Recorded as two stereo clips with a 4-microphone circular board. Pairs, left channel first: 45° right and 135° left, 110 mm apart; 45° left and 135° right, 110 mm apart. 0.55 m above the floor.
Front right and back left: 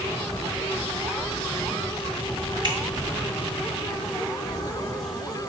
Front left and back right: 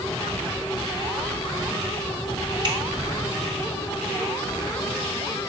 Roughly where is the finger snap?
Behind.